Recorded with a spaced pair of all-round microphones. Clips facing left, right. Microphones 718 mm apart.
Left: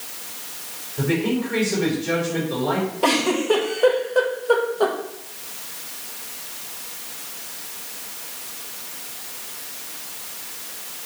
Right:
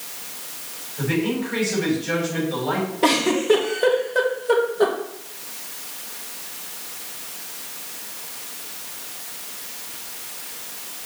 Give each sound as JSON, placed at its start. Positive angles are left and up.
{"t": 1.0, "sound": "a man speaking", "side_deg": 70, "distance_m": 4.0}
{"t": 3.0, "sound": "a giggle", "side_deg": -50, "distance_m": 1.4}